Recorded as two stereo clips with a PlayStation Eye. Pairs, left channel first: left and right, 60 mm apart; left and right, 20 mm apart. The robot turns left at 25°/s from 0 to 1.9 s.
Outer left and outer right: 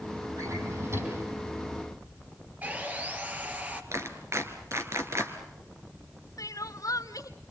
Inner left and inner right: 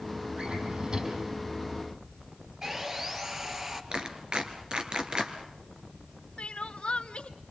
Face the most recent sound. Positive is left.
turn(degrees=70)  # may be behind; listen again after turning